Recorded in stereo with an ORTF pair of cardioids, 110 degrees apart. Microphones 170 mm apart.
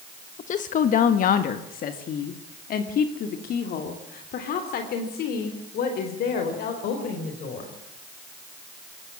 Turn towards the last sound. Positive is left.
turn(degrees=70)